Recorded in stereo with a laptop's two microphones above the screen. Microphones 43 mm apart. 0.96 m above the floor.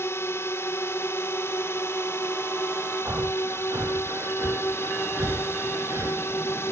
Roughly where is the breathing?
Right.